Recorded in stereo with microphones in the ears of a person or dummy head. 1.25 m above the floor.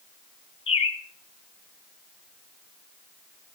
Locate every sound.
0.7 s a bird: 25° left (ahead or behind), 2.5 m